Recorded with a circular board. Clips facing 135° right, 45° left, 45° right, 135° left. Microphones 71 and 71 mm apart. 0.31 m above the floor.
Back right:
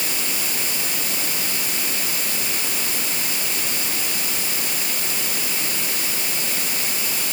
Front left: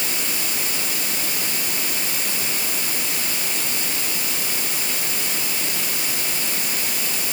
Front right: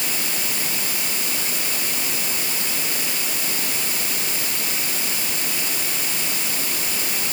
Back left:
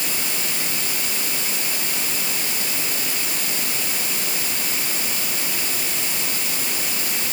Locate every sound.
Only background noise.